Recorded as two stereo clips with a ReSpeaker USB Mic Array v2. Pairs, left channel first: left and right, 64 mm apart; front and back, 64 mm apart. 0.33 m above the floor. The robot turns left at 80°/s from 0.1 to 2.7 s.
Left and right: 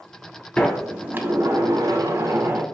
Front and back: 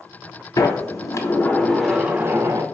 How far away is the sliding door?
About 0.7 m.